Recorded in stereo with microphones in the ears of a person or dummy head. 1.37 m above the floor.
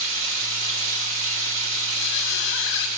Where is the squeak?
65° left (ahead or behind), 0.8 m.